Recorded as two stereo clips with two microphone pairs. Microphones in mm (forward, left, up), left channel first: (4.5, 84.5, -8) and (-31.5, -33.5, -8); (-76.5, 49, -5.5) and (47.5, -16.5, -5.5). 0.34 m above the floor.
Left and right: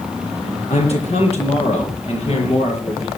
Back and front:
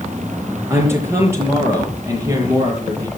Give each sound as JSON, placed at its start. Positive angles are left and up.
{"t": 0.7, "sound": "a man speaking", "azimuth_deg": 45, "distance_m": 7.0}